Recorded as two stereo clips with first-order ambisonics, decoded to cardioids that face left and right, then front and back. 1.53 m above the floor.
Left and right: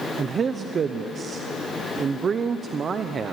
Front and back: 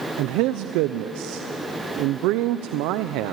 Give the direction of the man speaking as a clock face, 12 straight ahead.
5 o'clock.